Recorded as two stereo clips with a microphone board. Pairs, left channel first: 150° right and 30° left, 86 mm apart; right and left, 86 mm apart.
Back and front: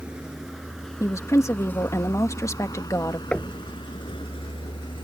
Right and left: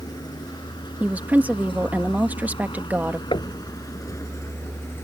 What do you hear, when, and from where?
0.0 s a vehicle: 50° right; by 5.0 s 150° right
1.0 s a woman speaking: 160° left
3.3 s knocking: 75° right